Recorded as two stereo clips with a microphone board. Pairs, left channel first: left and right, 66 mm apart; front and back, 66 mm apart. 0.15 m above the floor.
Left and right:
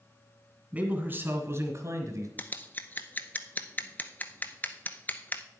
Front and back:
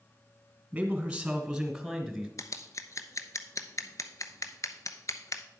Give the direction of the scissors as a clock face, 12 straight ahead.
11 o'clock.